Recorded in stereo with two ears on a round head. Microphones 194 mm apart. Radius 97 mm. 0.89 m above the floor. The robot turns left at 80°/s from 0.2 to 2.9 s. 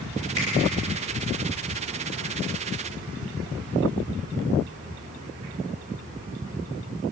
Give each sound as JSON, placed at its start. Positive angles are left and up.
{"t": 0.4, "sound": "a finger snap", "side_deg": 15, "distance_m": 10.0}